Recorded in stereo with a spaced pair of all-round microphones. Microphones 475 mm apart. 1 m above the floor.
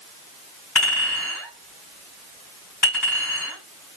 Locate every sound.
0.8 s a clink: 35° left (ahead or behind), 3.5 m